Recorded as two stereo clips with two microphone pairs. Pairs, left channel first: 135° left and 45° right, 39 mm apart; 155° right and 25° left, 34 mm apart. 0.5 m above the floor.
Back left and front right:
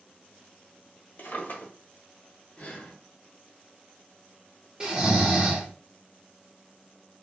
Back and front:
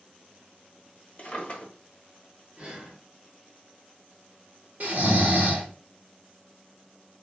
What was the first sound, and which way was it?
A drawer, 150° left.